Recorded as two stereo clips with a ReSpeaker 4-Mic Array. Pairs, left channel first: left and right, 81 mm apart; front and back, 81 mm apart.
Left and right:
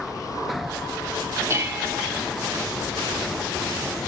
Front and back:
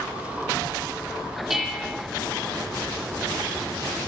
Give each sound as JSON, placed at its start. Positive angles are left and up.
{"t": 1.5, "sound": "dishes clattering", "azimuth_deg": -95, "distance_m": 1.0}